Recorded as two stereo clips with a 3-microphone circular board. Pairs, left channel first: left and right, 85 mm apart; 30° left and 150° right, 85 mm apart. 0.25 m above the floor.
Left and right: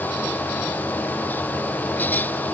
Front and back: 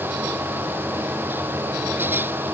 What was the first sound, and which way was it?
Only background noise.